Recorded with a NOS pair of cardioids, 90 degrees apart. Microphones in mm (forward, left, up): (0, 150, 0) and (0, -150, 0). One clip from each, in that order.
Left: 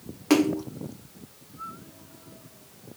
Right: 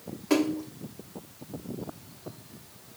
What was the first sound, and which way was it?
A splash, 60° left.